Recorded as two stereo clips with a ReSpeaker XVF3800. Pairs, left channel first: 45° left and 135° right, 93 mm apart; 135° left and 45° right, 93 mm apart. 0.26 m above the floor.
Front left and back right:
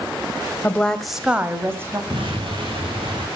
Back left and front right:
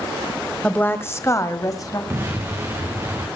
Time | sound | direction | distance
0.6 | a woman speaking | 80° left | 1.3 m
2.1 | an explosion | 105° right | 4 m